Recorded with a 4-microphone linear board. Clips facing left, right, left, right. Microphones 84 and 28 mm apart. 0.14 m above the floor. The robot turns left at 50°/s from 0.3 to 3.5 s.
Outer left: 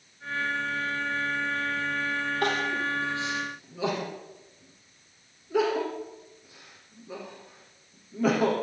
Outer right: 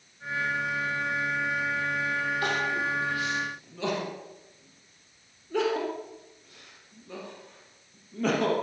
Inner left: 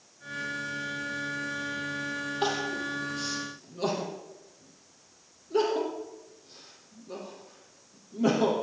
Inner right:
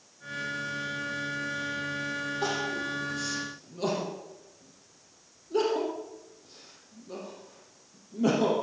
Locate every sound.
2.4 s crying: 60° left (ahead or behind), 5 m; by 8.5 s 10° left (ahead or behind), 5 m